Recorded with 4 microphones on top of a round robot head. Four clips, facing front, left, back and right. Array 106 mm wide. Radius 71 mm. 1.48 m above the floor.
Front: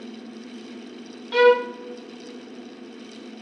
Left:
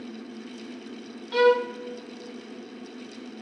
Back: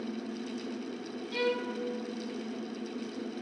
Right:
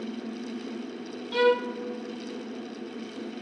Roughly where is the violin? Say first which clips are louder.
Left 3 dB, front 16 dB; ahead.